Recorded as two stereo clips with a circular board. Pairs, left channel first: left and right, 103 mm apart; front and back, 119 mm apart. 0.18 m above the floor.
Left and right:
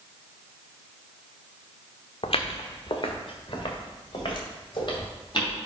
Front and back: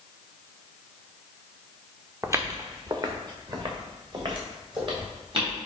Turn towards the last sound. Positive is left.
turn(degrees=135)